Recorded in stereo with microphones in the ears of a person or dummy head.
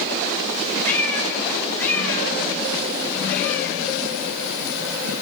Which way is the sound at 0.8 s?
10° left (ahead or behind).